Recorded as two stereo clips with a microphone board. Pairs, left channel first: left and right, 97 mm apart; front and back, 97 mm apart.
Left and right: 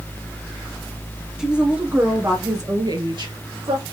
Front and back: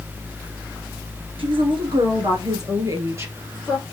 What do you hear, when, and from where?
1.4 s a woman speaking: 175° right, 2.5 m; by 3.8 s 105° right, 3 m